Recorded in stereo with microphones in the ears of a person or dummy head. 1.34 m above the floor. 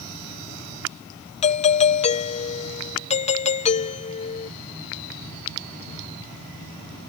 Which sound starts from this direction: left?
A doorbell, at 1.4 s.